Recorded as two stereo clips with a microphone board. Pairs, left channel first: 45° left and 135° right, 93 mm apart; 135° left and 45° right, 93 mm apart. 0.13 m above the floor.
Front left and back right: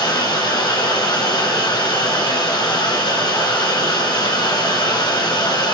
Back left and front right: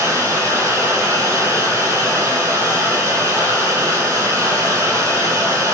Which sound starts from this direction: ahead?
Running water, at 0.0 s.